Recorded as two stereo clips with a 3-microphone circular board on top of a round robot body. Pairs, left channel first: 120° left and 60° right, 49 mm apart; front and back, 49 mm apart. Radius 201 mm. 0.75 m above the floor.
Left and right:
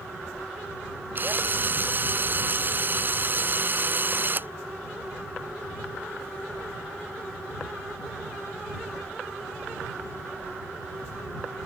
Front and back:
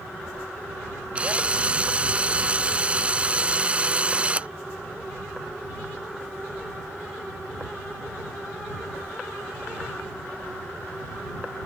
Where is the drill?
110° right.